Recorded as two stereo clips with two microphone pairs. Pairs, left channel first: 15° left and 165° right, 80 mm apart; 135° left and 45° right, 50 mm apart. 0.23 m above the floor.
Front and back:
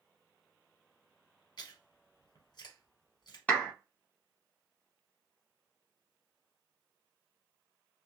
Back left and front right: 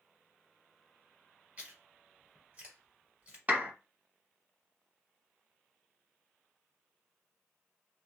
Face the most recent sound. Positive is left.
turn(degrees=-40)